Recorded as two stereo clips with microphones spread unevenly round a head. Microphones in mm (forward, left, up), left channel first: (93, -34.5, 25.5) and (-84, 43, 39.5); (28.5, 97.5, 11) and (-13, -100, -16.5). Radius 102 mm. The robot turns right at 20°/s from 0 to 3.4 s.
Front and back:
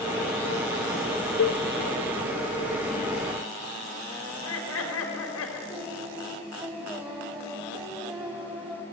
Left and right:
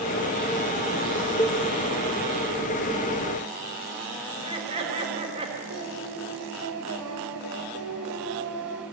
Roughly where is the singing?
Behind right.